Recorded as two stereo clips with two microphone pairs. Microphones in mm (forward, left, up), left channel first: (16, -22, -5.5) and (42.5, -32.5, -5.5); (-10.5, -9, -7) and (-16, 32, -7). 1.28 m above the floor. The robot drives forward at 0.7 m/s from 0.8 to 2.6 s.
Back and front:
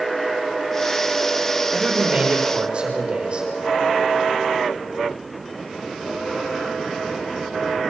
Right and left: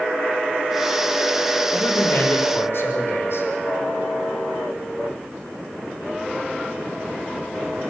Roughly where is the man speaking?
Ahead right.